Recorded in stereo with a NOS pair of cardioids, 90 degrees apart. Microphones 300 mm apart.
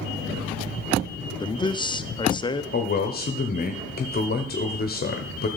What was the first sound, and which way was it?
A man speaking, 15° left.